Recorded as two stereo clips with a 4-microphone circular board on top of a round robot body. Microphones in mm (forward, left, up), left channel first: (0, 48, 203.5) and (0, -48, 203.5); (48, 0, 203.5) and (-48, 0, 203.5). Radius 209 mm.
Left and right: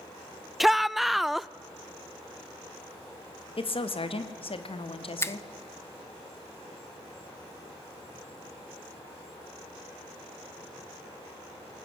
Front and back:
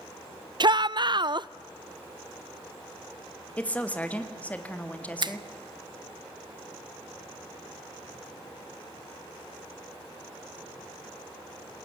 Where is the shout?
Straight behind, 0.6 m.